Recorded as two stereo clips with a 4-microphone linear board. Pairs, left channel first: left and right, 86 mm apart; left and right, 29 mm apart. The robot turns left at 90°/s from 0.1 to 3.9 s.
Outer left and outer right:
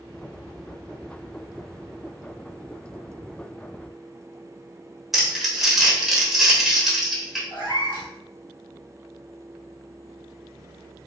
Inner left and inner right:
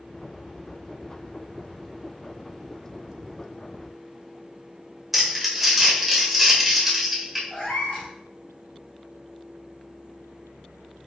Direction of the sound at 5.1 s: Centre (ahead or behind).